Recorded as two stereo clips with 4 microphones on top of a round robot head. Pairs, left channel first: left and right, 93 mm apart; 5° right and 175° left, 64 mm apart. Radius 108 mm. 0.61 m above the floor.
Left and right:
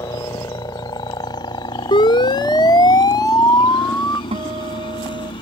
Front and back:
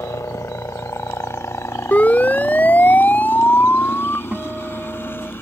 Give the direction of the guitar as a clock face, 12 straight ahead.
4 o'clock.